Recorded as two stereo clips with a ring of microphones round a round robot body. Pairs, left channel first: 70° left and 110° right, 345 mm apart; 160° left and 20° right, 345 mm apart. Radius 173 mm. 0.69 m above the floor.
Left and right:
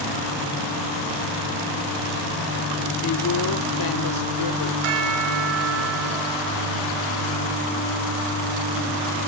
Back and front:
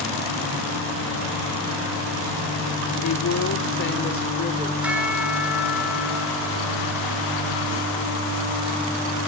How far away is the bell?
About 3.5 m.